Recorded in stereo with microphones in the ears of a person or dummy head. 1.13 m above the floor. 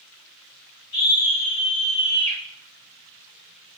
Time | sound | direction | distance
0.9 | a scream | 55° left (ahead or behind) | 4.5 m